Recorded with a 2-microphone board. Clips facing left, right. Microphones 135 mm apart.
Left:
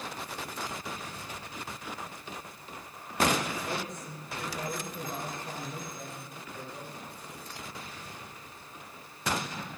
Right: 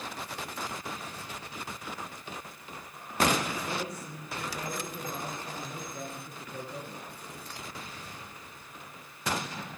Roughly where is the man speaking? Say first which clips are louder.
Right 2 dB; right.